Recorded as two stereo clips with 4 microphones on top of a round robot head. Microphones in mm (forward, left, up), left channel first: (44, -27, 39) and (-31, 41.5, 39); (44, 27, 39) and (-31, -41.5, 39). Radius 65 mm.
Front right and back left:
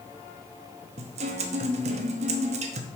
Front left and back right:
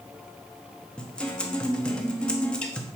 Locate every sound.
1.0 s a guitar: 125° left, 0.9 m